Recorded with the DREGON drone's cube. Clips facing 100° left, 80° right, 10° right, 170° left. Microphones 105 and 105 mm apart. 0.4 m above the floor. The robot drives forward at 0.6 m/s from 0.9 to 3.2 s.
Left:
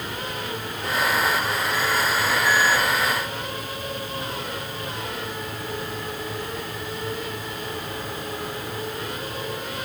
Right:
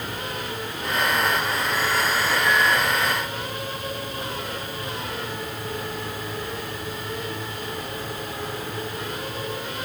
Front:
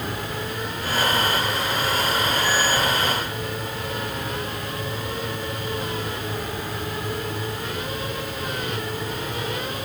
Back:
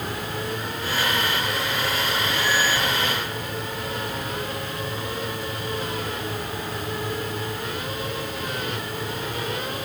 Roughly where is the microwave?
No microwave in this recording.